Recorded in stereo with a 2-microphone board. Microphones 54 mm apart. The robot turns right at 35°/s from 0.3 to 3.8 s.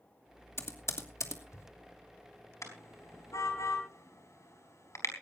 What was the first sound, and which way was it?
Typing on a keyboard, 50° left (ahead or behind).